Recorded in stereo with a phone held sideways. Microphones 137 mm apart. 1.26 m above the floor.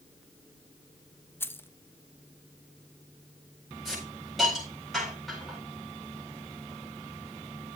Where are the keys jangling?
15° left (ahead or behind), 0.6 m.